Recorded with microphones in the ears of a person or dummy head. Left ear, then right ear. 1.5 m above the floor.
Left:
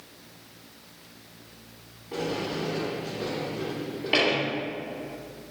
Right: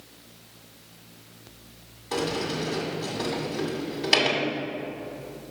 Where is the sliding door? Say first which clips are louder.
Right 2 dB; 65° right (ahead or behind), 2 m.